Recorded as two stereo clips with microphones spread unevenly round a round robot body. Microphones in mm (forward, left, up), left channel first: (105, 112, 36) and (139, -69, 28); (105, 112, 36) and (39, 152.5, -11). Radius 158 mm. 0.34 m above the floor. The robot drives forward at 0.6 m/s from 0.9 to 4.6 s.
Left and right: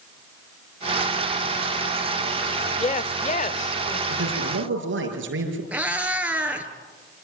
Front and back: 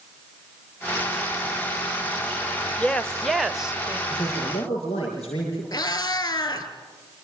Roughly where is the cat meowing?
Ahead.